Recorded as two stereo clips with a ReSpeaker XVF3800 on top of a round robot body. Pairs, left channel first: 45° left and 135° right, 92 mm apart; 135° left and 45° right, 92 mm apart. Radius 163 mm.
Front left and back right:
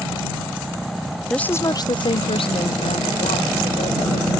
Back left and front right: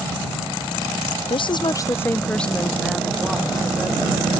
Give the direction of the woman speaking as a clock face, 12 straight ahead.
8 o'clock.